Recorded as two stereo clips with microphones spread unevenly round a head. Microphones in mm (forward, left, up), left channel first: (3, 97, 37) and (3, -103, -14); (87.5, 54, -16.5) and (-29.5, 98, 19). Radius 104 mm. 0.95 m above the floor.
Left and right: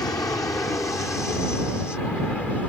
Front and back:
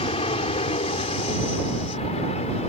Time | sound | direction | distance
0.0 | an aircraft | 10° left | ?